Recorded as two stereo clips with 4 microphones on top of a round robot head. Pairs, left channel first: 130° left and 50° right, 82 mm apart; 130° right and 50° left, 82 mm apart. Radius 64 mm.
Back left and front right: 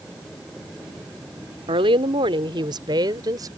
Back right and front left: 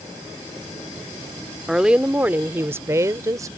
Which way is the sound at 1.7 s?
35° right.